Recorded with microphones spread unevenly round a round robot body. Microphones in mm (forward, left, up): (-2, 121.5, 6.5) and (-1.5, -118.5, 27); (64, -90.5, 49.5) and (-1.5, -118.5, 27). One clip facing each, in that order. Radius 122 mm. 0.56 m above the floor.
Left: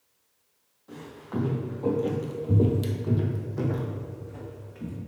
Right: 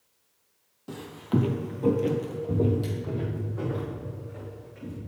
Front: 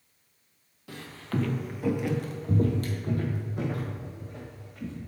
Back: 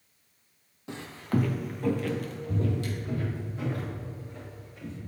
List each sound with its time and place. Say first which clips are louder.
0.9 s footsteps: right 7 dB, back 4 dB; 85° right, 1.1 m; by 5.0 s 50° left, 2.5 m